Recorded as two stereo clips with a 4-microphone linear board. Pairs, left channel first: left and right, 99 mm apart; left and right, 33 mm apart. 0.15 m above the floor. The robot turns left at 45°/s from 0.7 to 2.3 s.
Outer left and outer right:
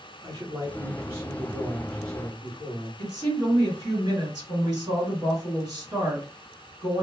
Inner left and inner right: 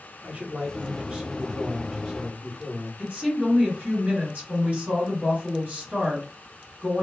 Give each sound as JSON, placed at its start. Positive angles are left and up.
{"t": 0.2, "sound": "a man speaking", "azimuth_deg": -125, "distance_m": 1.6}
{"t": 3.0, "sound": "a woman speaking", "side_deg": -45, "distance_m": 1.9}